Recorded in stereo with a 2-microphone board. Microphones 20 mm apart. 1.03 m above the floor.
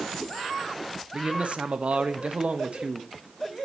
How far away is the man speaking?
About 1.2 m.